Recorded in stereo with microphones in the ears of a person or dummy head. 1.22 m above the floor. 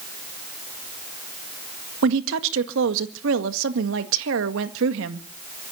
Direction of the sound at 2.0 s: 70° right (ahead or behind).